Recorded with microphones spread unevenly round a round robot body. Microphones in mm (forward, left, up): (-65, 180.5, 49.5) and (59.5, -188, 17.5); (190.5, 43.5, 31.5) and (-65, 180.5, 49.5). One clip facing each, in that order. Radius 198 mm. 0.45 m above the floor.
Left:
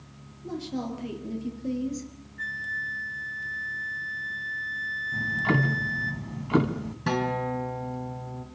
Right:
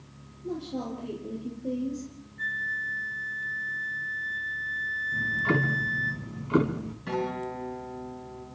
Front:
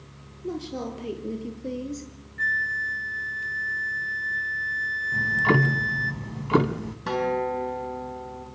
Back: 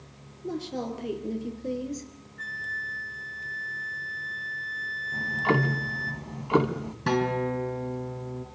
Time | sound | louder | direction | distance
0.4 | a woman speaking | left 1 dB, front 1 dB | 50° left | 9.5 m
2.4 | a flute | even, front 5 dB | 25° left | 3 m
5.1 | ticking | left 1 dB, front 3 dB | 35° left | 2 m
7.1 | a guitar | left 3 dB, even | 95° left | 6.5 m